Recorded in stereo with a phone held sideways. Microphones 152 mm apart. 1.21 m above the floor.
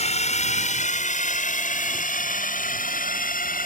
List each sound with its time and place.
0.0 s a drone: 50° left (ahead or behind); by 3.7 s 70° left (ahead or behind)